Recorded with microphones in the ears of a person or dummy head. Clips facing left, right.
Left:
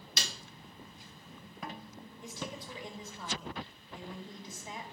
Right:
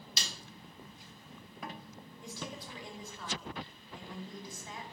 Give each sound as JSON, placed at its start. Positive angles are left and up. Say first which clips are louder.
{"t": 0.2, "sound": "a snare drum", "louder": "left 3 dB", "side_deg": 50, "distance_m": 1.4}
{"t": 2.2, "sound": "a woman speaking", "louder": "left 1 dB", "side_deg": 25, "distance_m": 2.5}